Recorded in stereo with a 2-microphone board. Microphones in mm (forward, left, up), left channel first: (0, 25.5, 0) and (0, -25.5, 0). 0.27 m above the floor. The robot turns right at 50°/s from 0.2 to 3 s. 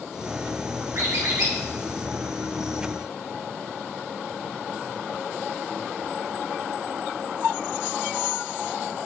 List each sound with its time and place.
0.9 s a squeak: 90° right, 3 m; by 1.5 s 60° right (ahead or behind), 3 m